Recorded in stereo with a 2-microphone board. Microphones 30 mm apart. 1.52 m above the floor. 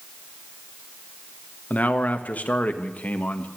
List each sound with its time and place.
1.7 s a man speaking: 70° left (ahead or behind), 1.7 m